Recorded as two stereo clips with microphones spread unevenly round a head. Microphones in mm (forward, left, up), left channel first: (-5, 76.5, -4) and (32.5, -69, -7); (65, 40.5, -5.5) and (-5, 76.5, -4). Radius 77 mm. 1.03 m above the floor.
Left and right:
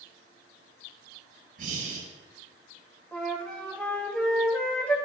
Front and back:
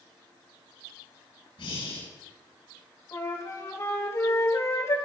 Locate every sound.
1.6 s breathing: 40° right, 7 m
3.1 s a flute: 25° left, 3 m